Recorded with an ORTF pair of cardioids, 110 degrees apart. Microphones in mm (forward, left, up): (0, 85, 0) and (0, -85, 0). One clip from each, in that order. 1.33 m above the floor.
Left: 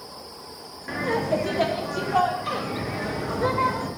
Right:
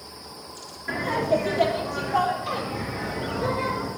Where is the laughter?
5° left, 1.1 m; by 3.9 s 50° left, 2 m.